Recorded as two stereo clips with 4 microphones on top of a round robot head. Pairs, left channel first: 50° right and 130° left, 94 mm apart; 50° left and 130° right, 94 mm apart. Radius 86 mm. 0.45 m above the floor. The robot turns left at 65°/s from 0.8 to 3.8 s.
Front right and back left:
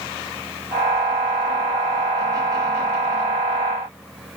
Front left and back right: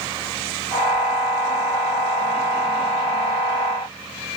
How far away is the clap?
I don't hear a clap.